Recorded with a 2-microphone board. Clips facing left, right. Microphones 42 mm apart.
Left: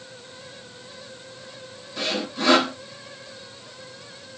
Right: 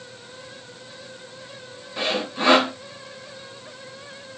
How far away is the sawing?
About 0.8 m.